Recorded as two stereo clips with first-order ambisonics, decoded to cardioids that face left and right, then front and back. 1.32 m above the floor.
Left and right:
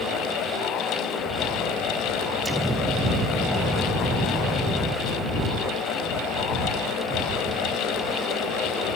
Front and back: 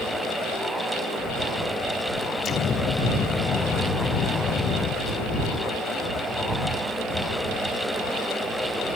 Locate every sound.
2.5 s an explosion: 10° right